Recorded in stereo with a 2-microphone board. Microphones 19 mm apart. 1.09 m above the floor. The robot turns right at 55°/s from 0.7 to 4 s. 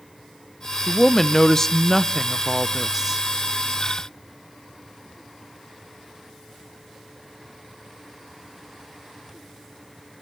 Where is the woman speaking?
80° left, 0.6 m; by 3.2 s 150° right, 0.6 m.